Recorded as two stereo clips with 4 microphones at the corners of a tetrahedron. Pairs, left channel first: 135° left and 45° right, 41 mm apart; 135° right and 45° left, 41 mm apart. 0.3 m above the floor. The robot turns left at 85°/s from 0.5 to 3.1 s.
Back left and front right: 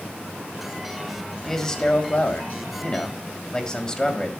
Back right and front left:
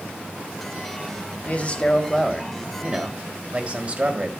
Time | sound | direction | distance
1.4 | a man speaking | 145° right | 1.7 m